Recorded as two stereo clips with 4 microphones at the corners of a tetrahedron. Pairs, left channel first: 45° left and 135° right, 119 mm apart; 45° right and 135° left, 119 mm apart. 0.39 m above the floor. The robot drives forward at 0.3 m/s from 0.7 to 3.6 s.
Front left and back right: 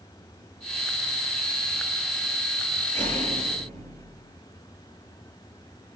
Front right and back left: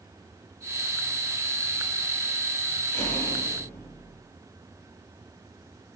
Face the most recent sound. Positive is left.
turn(degrees=-115)